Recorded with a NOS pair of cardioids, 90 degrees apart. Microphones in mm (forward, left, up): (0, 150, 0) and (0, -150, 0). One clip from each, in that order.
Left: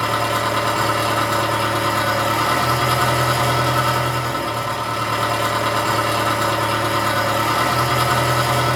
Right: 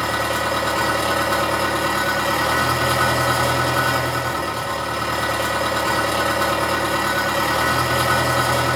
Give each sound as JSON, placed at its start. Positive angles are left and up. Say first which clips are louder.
{"t": 0.0, "sound": "an engine running", "louder": "left 2 dB", "azimuth_deg": 0, "distance_m": 1.6}